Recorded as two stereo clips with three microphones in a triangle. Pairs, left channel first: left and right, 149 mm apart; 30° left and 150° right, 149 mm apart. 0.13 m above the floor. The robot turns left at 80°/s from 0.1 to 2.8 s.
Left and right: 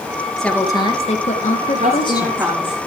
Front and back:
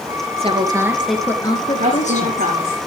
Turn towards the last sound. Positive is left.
turn(degrees=160)